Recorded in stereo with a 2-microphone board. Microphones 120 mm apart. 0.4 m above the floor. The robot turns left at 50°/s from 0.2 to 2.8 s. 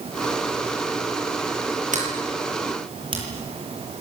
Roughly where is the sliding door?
Right.